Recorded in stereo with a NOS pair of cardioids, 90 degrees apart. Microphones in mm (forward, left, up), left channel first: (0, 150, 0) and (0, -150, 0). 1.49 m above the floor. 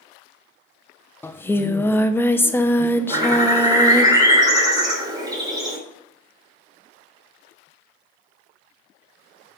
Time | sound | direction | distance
1.2 | singing | 5° left | 0.7 m
3.1 | a bird | 15° right | 3 m